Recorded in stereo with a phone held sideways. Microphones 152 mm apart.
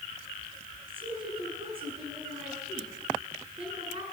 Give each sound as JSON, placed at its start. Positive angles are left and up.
{"t": 0.9, "sound": "a woman speaking", "side_deg": -35, "distance_m": 9.5}